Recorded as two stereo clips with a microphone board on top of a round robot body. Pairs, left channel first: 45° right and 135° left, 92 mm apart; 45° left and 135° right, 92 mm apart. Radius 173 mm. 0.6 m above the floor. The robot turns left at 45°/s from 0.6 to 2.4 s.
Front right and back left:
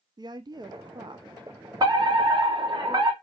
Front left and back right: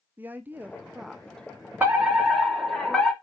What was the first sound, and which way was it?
A woman speaking, 160° left.